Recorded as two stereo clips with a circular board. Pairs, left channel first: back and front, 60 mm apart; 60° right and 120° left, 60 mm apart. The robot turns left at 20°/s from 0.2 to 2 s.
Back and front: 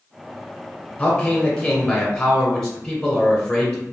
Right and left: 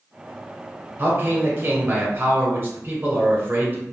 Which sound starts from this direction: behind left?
A man speaking, at 1.0 s.